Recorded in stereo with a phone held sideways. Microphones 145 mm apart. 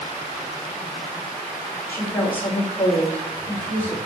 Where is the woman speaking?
15° left (ahead or behind), 3 m.